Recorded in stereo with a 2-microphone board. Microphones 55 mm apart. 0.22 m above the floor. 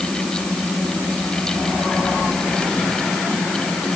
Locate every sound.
Only background noise.